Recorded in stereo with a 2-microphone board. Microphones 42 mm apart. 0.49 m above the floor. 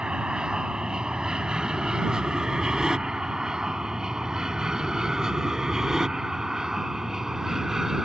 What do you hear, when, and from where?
0.0 s an aircraft: 20° right (ahead or behind); by 8.1 s 10° right (ahead or behind)